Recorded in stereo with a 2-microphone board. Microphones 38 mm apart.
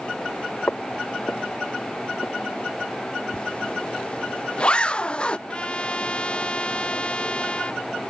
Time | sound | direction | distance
0.7 | footsteps | 60° left (ahead or behind) | ?
3.3 | a zipper | 25° left (ahead or behind) | ?
5.5 | a trumpet | 30° left (ahead or behind) | ?